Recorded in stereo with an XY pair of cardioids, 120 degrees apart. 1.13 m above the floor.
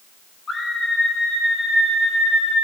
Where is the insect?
No insect in this recording.